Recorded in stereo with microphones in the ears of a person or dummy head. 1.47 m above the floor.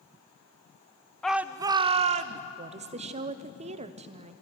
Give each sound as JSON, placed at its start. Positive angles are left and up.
{"t": 1.2, "sound": "a shout", "side_deg": 5, "distance_m": 0.5}
{"t": 2.6, "sound": "a woman speaking", "side_deg": -35, "distance_m": 0.7}